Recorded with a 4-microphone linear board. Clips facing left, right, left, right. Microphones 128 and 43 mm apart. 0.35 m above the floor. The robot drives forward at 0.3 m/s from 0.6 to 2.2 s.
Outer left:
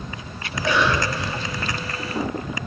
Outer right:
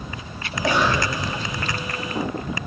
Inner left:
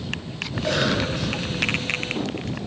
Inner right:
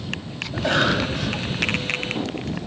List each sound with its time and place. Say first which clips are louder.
0.5 s a cough: even, inner right 3 dB; 40° right (ahead or behind), 2.5 m